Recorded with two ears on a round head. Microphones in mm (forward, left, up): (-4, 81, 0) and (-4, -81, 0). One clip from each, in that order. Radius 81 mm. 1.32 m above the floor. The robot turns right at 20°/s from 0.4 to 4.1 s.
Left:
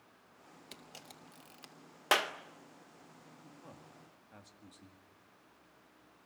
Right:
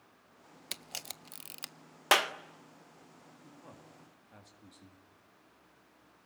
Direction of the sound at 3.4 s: 10° right (ahead or behind).